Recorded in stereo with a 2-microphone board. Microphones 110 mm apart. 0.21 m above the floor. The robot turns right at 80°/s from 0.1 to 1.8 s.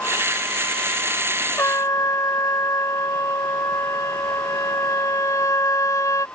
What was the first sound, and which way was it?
A trumpet, 25° left (ahead or behind).